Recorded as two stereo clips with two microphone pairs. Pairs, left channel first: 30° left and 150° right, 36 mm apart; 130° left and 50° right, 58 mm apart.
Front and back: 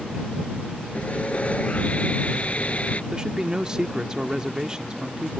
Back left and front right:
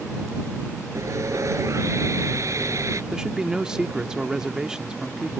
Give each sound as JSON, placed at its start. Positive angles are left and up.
{"t": 0.9, "sound": "sawing", "azimuth_deg": -20}
{"t": 3.1, "sound": "a man speaking", "azimuth_deg": -105}